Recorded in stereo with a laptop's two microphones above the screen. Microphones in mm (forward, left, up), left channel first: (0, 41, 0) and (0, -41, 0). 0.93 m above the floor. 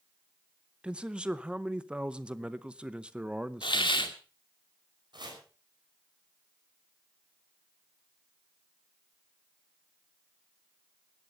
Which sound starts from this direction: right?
Chopping, at 5.1 s.